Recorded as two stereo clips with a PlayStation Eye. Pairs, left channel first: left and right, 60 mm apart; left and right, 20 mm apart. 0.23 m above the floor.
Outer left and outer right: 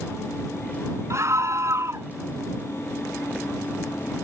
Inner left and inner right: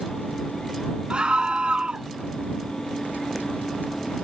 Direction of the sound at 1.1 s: 60° right (ahead or behind).